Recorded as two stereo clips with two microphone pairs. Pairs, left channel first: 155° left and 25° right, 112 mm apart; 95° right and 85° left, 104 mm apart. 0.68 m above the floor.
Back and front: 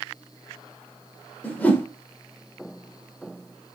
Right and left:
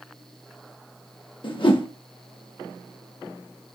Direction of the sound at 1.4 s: 130° right.